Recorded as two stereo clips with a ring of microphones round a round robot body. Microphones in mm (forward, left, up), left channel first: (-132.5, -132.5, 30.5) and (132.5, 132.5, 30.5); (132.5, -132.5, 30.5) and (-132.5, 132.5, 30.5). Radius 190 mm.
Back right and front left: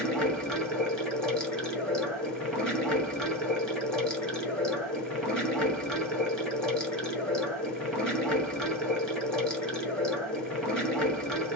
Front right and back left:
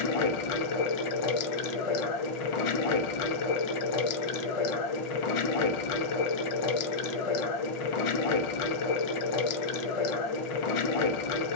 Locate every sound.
0.0 s running water: 45° right, 1.1 m